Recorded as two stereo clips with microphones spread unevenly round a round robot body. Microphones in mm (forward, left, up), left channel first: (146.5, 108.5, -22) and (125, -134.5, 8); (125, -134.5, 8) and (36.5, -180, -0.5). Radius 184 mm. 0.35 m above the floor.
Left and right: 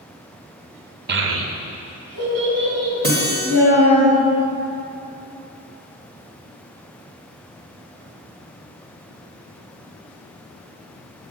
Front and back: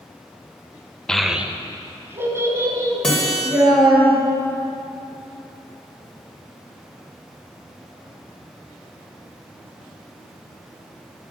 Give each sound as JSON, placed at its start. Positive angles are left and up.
{"t": 1.1, "sound": "a child speaking", "azimuth_deg": -60, "distance_m": 0.5}
{"t": 3.0, "sound": "a guitar", "azimuth_deg": -60, "distance_m": 1.6}